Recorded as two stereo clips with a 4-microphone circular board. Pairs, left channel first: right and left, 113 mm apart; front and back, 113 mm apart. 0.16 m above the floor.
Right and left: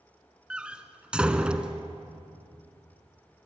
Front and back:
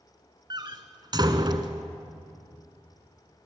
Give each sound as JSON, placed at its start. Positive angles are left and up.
{"t": 0.5, "sound": "a door slam", "azimuth_deg": 165, "distance_m": 1.3}